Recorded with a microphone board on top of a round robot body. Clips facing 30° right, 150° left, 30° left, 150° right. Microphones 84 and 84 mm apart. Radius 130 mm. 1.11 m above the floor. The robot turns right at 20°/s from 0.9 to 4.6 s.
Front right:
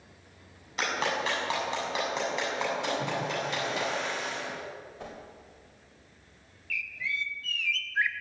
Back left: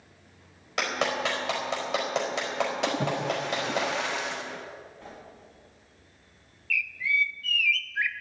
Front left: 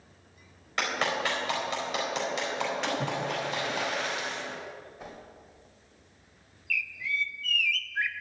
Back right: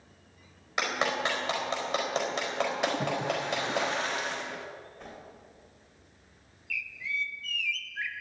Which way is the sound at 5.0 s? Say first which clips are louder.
Front right 3 dB, front left 2 dB; 50° right.